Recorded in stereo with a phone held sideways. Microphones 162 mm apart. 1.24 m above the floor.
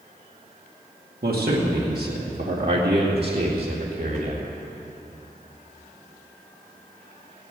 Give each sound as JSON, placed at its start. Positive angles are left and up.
{"t": 1.2, "sound": "a man speaking", "side_deg": -75, "distance_m": 2.0}